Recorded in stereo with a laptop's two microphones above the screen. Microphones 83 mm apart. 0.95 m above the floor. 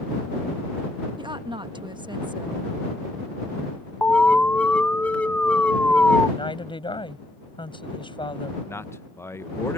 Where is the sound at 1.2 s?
65° right (ahead or behind).